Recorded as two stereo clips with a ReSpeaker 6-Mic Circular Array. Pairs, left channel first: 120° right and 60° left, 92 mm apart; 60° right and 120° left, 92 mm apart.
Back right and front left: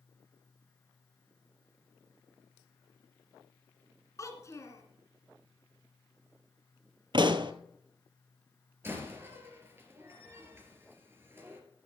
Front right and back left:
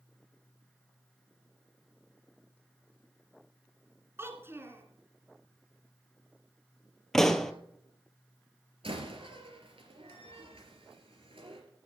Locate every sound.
4.2 s a child speaking: 175° right, 2.5 m
7.1 s a pop: 25° left, 1.1 m
8.8 s a door slam: 125° left, 3 m